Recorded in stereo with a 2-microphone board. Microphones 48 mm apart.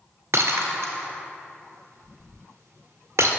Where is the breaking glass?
75° right (ahead or behind), 1.6 m.